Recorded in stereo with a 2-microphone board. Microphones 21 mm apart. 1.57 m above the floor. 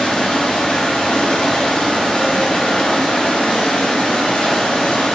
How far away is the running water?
About 3 m.